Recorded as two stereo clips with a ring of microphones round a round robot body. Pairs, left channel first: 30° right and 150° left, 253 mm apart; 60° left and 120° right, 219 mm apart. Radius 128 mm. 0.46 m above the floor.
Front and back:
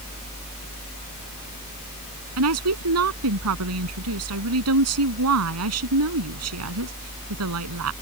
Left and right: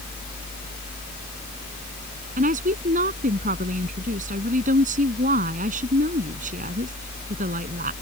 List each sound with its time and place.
2.4 s a woman speaking: straight behind